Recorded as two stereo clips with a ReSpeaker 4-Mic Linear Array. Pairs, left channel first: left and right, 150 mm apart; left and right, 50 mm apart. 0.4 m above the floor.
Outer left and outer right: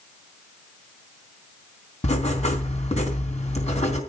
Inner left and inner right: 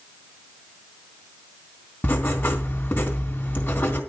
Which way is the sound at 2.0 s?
45° left (ahead or behind).